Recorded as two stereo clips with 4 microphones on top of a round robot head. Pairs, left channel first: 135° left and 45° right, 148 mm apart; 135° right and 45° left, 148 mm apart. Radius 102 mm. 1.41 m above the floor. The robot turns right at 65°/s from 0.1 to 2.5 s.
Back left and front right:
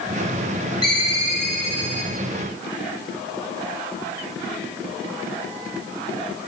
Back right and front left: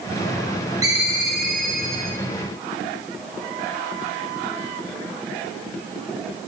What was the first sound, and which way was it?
A ringtone, 90° left.